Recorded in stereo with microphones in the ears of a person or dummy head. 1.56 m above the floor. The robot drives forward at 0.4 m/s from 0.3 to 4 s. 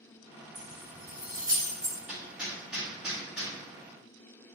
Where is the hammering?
10° right (ahead or behind), 1.0 m; by 3.5 s 5° right (ahead or behind), 1.5 m.